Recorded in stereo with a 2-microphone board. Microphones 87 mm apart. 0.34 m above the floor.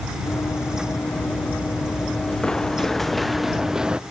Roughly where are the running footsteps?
Left.